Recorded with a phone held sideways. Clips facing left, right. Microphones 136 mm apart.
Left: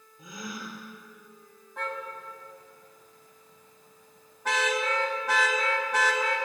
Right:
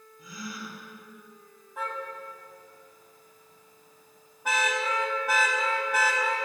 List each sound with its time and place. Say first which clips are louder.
0.2 s a gasp: left 1 dB; 20° left (ahead or behind), 6.5 m
1.8 s a car horn: right 1 dB; 5° right (ahead or behind), 5 m